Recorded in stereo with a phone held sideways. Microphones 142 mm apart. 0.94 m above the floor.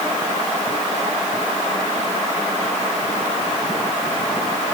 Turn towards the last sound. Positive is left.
No sound to turn to.